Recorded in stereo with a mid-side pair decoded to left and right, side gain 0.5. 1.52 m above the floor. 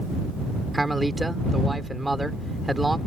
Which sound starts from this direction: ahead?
A man speaking, at 0.7 s.